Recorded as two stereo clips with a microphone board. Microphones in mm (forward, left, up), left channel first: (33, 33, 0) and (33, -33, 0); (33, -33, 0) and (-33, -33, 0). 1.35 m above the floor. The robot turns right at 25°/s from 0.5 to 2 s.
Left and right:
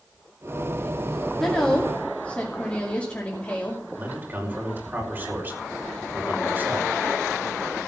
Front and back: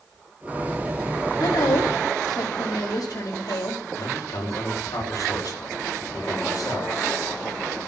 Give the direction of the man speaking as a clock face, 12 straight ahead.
1 o'clock.